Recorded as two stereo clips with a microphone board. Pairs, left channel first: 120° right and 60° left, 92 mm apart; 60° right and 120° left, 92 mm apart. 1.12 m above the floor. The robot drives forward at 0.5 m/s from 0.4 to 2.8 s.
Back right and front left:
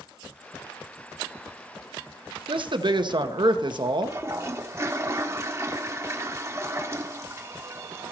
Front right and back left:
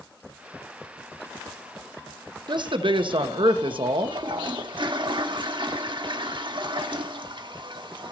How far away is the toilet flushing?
About 1.0 m.